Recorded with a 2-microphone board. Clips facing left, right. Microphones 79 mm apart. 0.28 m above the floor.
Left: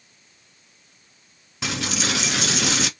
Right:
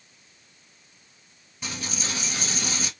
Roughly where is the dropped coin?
Left.